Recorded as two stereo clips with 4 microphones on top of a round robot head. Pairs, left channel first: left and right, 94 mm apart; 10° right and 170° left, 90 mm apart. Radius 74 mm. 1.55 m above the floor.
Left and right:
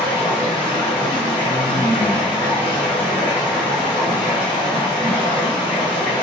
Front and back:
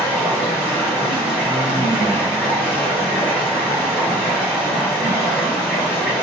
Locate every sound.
0.0 s running water: 100° left, 1.3 m